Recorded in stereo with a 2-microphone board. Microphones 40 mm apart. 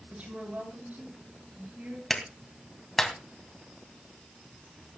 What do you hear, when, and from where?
0.1 s a woman speaking: 45° right (ahead or behind), 7 m; by 2.0 s 55° right (ahead or behind), 7 m
2.1 s a clap: 5° left (ahead or behind), 2.5 m